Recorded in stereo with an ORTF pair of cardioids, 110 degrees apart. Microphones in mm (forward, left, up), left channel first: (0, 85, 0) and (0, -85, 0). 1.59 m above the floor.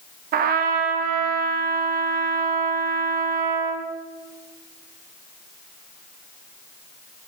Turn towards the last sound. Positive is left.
turn(degrees=-60)